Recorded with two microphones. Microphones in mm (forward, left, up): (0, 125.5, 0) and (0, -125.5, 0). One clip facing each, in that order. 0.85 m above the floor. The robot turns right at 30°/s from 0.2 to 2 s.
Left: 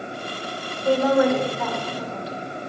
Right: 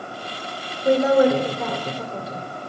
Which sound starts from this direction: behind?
A woman speaking, at 0.8 s.